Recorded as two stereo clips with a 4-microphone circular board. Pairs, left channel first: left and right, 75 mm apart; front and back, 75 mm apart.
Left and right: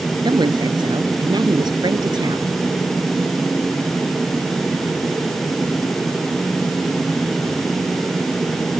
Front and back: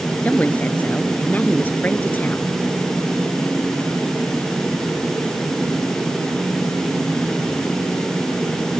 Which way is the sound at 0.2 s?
70° right.